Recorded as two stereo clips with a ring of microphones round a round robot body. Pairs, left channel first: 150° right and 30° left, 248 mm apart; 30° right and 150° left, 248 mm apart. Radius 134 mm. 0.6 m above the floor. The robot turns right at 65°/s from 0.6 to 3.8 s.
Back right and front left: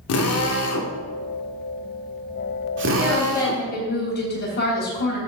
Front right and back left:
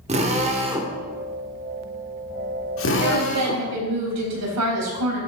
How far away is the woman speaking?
About 4 m.